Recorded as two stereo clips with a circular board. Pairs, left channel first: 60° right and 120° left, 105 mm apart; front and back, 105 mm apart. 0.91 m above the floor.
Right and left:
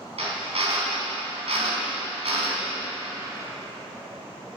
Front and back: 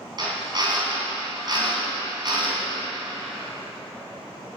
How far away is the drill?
About 3 m.